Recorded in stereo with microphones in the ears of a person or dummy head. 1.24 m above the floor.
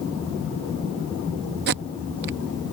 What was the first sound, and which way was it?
Tape being pulled, 50° right (ahead or behind).